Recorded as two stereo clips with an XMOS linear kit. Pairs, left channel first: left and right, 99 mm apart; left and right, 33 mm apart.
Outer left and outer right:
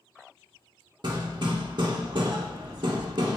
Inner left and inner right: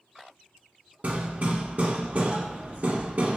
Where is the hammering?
50° right (ahead or behind), 0.5 m.